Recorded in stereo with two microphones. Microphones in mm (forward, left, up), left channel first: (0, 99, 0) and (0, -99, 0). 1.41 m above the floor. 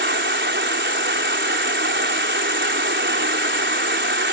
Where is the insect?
75° right (ahead or behind).